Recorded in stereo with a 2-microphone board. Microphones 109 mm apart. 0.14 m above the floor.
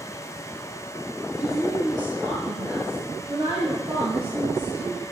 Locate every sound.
1.4 s a woman speaking: 25° right (ahead or behind), 2.0 m; by 5.0 s 70° right (ahead or behind), 4.5 m